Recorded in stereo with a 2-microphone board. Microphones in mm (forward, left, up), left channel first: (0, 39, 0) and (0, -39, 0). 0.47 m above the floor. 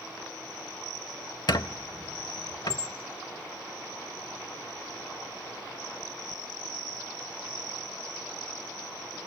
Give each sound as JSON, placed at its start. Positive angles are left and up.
{"t": 1.5, "sound": "a squeak", "side_deg": 60, "distance_m": 0.7}